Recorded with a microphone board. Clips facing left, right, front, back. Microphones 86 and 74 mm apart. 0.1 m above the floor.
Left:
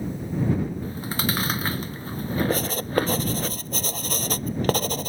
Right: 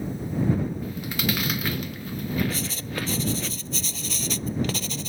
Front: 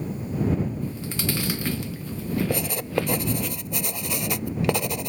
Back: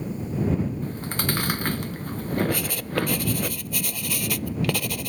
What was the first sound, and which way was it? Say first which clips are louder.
Chewing: even, back 1 dB; 145° left.